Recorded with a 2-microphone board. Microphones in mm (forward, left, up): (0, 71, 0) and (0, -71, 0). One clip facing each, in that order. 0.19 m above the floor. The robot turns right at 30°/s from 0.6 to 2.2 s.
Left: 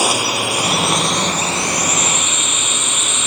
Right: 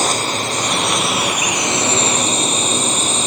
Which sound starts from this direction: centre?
A drone, at 0.0 s.